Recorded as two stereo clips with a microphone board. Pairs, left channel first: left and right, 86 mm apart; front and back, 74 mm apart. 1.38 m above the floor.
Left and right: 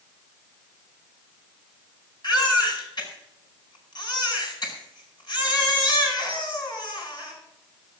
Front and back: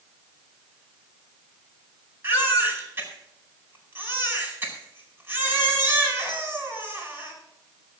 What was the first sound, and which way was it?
A baby crying, 125° left.